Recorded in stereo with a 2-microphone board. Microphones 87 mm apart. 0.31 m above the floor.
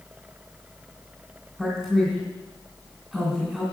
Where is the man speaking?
10° right (ahead or behind), 2 m.